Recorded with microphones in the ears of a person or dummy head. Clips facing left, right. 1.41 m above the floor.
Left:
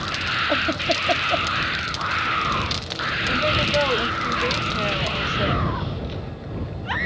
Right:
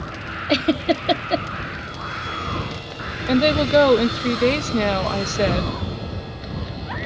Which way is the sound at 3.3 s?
60° right (ahead or behind).